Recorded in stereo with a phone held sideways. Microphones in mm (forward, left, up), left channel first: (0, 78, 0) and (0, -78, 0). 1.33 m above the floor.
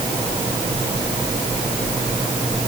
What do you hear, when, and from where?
Only background noise.